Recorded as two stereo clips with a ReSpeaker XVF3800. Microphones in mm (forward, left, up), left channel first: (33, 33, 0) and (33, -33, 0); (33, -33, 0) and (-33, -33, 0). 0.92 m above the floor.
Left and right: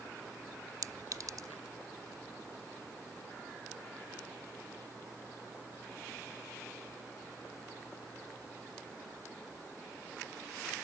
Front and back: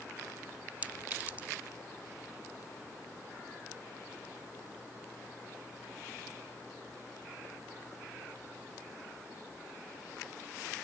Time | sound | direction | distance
0.8 | a clink | 115° right | ?